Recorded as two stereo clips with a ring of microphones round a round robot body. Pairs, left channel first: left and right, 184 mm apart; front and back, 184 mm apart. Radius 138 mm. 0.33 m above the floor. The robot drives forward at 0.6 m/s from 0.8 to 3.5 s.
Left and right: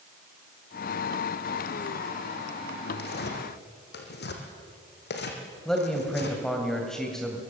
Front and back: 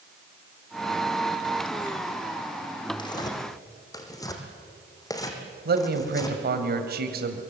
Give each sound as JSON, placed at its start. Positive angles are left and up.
{"t": 3.0, "sound": "tearing paper", "azimuth_deg": 65, "distance_m": 3.5}
{"t": 5.7, "sound": "a man speaking", "azimuth_deg": 175, "distance_m": 2.0}